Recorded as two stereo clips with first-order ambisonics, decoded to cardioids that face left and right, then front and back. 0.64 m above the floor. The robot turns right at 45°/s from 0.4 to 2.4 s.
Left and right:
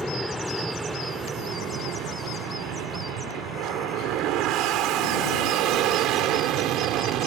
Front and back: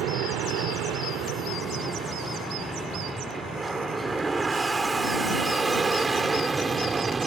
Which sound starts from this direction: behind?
An aircraft, at 0.0 s.